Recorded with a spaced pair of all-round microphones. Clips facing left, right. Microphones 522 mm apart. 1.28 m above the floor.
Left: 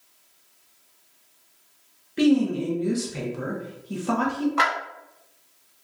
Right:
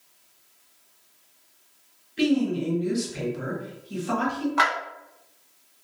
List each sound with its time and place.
2.2 s a woman speaking: 70° left (ahead or behind), 0.9 m
4.6 s a clap: 5° right (ahead or behind), 0.7 m